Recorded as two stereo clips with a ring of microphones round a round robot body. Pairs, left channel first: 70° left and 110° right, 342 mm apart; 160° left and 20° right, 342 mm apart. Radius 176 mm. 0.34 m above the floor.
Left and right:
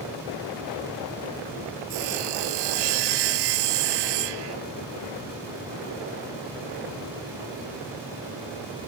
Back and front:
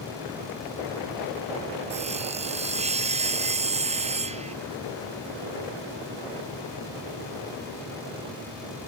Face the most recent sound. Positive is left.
turn(degrees=-95)